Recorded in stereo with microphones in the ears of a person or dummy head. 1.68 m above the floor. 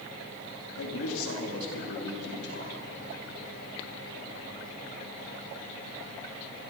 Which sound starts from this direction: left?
A man speaking, at 0.8 s.